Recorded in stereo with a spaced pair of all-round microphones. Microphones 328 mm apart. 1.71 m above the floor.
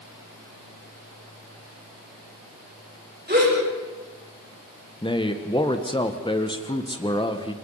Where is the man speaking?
15° left (ahead or behind), 1.6 m.